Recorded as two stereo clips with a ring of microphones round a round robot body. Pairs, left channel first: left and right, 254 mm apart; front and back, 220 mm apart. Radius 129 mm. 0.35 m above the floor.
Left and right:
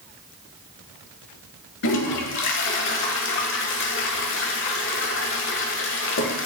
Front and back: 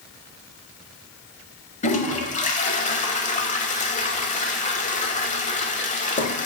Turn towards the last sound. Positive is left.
turn(degrees=55)